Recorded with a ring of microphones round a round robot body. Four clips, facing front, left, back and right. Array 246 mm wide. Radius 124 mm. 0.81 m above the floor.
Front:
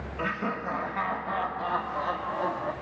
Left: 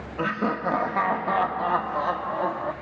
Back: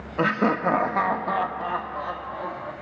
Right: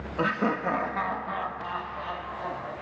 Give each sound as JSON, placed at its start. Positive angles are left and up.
{"t": 0.2, "sound": "laughter", "azimuth_deg": -175, "distance_m": 0.9}